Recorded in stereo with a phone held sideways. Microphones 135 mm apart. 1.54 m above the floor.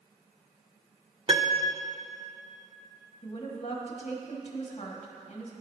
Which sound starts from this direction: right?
A piano, at 1.3 s.